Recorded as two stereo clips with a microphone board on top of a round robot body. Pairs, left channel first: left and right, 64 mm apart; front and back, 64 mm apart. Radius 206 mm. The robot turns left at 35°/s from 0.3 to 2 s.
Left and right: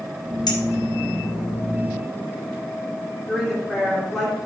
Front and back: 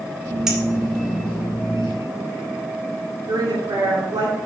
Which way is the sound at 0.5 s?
100° left.